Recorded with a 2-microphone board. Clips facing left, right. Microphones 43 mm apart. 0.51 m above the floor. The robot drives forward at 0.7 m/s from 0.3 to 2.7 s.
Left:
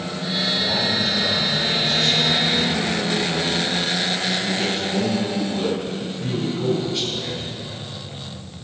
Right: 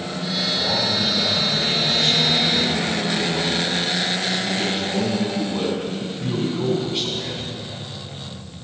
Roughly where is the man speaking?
Right.